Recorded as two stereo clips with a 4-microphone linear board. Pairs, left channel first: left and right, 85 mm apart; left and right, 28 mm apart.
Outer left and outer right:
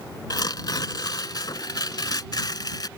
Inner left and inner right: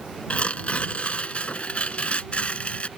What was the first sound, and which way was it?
Tearing paper, 50° left (ahead or behind).